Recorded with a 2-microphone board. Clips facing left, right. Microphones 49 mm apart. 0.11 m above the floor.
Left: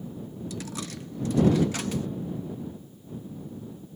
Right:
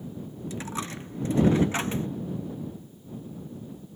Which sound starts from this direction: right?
A dropped coin, at 0.5 s.